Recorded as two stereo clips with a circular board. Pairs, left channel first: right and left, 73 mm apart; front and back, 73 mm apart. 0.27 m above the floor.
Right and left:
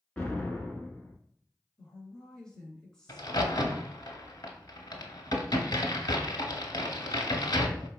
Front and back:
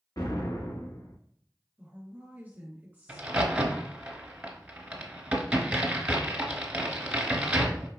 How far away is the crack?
About 0.8 m.